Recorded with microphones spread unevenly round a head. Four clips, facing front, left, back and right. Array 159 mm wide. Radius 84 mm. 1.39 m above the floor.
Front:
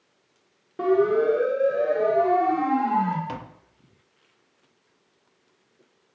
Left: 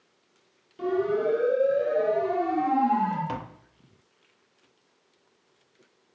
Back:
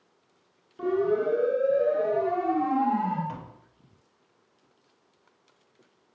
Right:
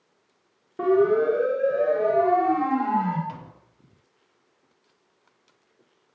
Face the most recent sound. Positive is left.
turn(degrees=50)